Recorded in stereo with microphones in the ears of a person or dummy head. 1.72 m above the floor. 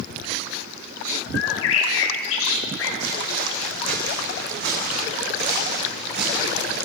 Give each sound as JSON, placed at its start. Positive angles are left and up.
{"t": 1.3, "sound": "a bird", "side_deg": 65, "distance_m": 2.0}
{"t": 3.0, "sound": "footsteps", "side_deg": -70, "distance_m": 6.5}